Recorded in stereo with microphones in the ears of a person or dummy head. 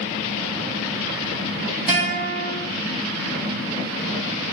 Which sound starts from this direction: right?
A guitar, at 1.9 s.